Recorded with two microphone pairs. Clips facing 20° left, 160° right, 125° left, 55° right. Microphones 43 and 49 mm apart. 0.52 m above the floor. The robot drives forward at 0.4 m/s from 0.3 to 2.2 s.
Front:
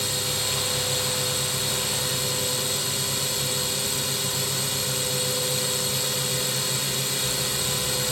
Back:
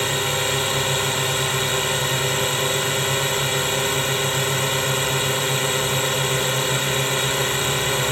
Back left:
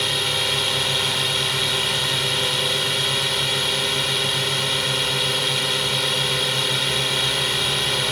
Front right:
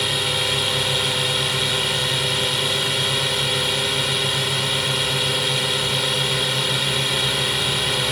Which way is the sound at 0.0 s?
145° right.